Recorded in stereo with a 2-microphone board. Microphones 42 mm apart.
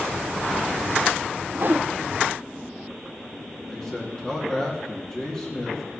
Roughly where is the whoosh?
Right.